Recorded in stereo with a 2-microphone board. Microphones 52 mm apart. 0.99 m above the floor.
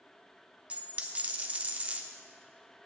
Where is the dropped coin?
30° right (ahead or behind), 0.6 m.